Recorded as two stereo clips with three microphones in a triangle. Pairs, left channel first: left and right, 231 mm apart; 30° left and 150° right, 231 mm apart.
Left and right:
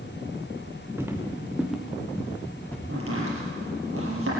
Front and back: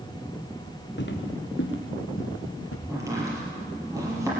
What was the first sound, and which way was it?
Footsteps, 10° right.